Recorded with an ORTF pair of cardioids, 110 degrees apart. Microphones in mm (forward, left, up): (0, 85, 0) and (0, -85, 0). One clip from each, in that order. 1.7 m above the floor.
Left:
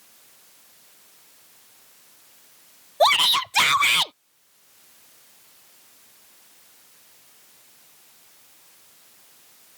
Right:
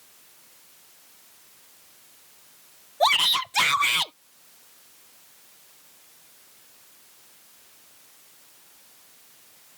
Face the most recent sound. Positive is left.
turn(degrees=55)